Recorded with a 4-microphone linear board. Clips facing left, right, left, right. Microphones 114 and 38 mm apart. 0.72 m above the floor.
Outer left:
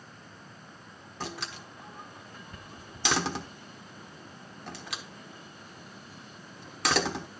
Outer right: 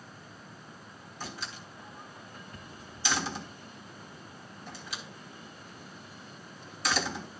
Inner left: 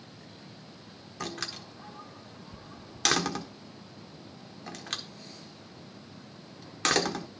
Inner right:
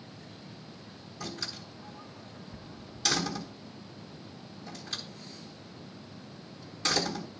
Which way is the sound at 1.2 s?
70° left (ahead or behind).